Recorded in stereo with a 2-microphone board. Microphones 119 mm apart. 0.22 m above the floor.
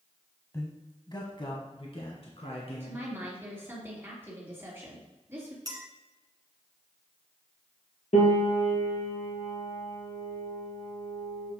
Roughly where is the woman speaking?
Centre.